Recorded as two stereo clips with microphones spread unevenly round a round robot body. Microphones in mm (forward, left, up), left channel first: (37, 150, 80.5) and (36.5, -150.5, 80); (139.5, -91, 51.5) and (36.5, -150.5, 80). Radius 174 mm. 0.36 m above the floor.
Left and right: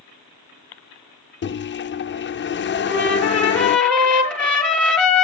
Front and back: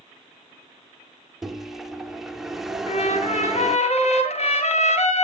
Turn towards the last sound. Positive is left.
turn(degrees=5)